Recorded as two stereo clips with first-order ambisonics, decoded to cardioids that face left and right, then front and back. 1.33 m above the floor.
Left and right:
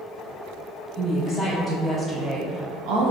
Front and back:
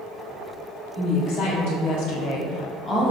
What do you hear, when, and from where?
0.9 s a woman speaking: 15° left, 1.1 m; by 3.1 s 80° right, 0.6 m